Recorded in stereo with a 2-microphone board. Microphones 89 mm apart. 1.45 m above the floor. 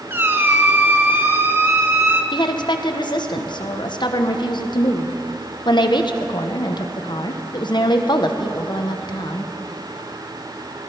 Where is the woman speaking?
65° left (ahead or behind), 1.1 m.